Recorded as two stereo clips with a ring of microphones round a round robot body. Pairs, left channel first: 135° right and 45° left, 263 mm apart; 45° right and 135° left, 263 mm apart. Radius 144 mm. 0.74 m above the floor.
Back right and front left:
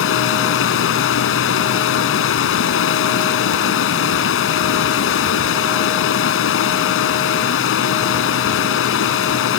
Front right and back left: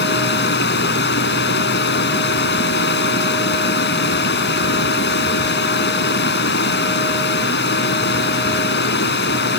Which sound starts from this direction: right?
Running water, at 0.0 s.